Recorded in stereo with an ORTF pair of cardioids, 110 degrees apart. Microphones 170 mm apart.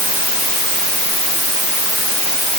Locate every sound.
Only background noise.